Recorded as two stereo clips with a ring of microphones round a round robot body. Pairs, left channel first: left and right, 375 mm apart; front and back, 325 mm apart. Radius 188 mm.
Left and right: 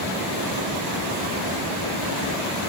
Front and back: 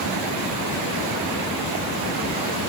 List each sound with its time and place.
Only background noise.